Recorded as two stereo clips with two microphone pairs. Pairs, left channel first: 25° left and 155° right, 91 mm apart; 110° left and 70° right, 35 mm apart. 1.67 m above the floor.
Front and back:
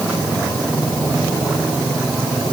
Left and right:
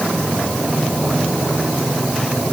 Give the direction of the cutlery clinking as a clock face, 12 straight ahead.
No cutlery clinking in this recording.